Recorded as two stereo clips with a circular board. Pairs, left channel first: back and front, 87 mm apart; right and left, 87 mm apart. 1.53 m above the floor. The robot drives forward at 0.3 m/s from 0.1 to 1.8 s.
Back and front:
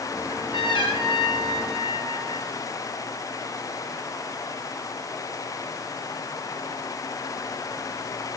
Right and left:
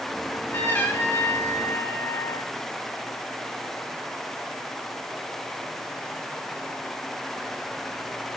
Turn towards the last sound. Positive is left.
turn(degrees=-165)